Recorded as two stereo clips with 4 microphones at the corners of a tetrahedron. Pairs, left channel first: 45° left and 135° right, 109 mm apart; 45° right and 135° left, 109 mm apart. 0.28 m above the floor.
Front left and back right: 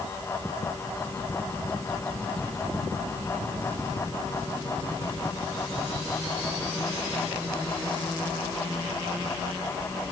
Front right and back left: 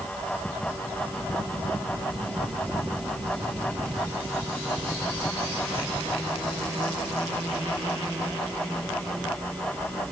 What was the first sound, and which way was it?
Only background noise.